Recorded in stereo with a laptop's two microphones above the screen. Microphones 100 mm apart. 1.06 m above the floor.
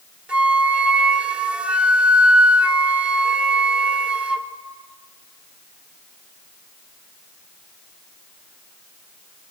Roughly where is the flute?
Centre.